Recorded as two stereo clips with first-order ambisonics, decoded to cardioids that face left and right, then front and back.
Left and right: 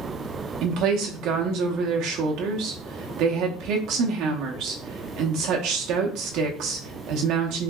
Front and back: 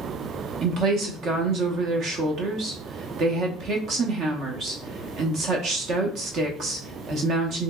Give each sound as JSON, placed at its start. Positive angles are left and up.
{"t": 0.6, "sound": "a woman speaking", "azimuth_deg": -125, "distance_m": 0.7}